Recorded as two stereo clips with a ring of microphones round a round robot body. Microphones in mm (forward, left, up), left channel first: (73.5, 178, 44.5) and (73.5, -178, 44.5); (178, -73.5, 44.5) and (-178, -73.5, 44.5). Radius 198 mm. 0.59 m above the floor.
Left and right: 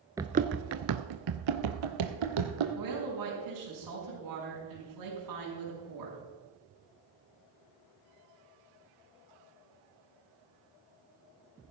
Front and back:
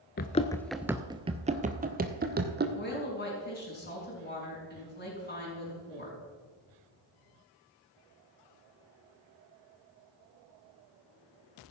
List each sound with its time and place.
0.2 s running footsteps: 20° right, 0.5 m; by 2.6 s 115° right, 1.8 m
2.8 s a woman speaking: 65° right, 5.5 m